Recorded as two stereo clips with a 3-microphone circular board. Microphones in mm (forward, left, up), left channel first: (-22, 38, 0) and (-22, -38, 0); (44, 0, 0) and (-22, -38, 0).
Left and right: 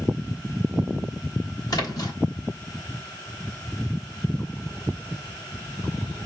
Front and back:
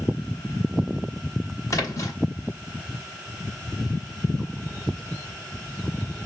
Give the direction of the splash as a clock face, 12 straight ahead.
10 o'clock.